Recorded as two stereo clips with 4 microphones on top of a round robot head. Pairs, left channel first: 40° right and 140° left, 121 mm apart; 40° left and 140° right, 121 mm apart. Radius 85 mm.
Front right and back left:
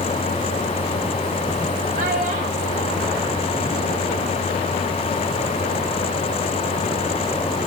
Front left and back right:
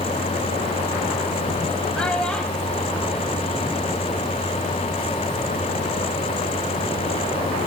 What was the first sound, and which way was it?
A child speaking, 125° left.